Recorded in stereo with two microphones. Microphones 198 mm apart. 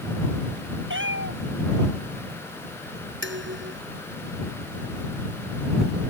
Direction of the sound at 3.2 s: 70° right (ahead or behind).